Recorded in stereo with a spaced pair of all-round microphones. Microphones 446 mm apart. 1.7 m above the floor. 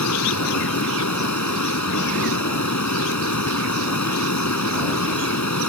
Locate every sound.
0.0 s running water: 40° left (ahead or behind)